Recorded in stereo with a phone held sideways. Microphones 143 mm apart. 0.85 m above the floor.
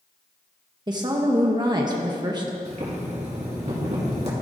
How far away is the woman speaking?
About 0.6 m.